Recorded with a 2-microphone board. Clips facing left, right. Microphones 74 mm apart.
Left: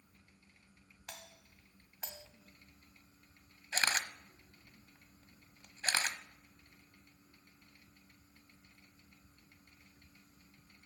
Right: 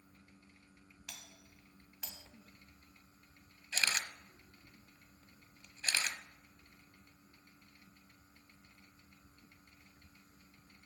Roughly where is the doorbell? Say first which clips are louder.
Left 4 dB; left.